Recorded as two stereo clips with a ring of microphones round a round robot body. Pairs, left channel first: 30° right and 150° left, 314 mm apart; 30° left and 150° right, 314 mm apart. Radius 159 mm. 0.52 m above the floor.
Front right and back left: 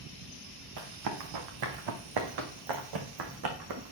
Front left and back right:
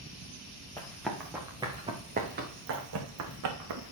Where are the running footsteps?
115° left, 2.5 m; by 3.9 s 175° right, 2 m.